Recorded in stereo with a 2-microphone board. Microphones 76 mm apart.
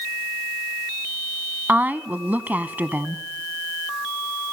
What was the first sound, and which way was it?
A woman speaking, 25° right (ahead or behind).